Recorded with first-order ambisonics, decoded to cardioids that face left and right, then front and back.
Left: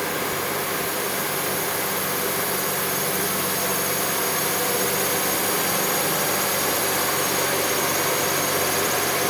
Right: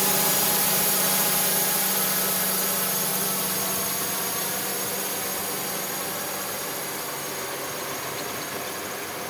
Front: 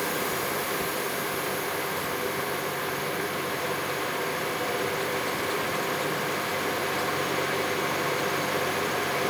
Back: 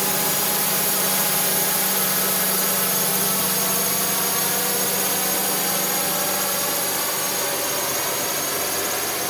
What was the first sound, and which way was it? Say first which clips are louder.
A drone: right 1 dB, back 4 dB; 145° right.